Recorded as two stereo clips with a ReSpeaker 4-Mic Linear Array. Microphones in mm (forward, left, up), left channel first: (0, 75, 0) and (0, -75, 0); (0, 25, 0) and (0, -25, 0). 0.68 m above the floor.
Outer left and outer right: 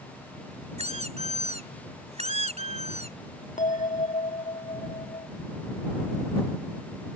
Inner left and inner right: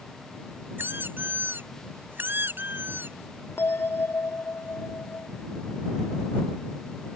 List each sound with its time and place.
0.8 s a squeak: 45° right (ahead or behind)
3.6 s a bell: 55° left (ahead or behind)